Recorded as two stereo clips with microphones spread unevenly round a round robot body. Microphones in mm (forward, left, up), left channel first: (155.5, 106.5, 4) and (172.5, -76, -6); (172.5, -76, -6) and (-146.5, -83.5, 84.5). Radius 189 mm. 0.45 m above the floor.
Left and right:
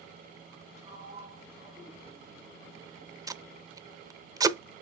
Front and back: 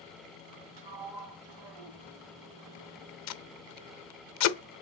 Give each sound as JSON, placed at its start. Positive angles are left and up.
{"t": 0.8, "sound": "a sliding door", "azimuth_deg": -165, "distance_m": 1.4}
{"t": 3.3, "sound": "tape being pulled", "azimuth_deg": -15, "distance_m": 0.7}